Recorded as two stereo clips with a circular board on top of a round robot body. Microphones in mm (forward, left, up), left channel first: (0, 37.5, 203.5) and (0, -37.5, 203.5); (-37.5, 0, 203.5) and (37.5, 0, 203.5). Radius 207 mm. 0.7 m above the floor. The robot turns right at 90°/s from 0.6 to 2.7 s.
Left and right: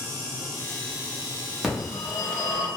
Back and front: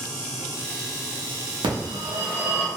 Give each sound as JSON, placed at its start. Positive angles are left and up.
{"t": 1.6, "sound": "a phone ringing", "azimuth_deg": -5, "distance_m": 0.9}